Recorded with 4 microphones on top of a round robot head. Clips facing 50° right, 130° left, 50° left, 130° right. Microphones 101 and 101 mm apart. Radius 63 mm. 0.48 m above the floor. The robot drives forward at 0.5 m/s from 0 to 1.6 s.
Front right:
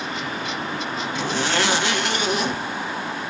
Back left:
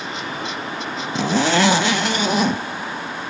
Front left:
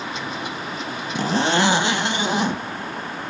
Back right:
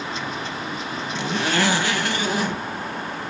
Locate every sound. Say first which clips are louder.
1.1 s a zipper: back left 7 dB, front left 4 dB; 100° left, 0.6 m; by 2.6 s 120° left, 0.7 m